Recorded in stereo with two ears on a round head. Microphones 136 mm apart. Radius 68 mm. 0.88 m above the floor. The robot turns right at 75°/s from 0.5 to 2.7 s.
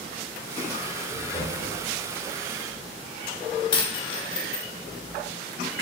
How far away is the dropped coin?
About 0.9 m.